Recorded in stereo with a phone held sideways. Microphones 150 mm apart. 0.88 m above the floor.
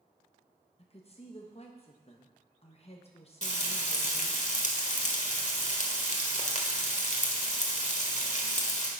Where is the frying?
50° left (ahead or behind), 1.4 m.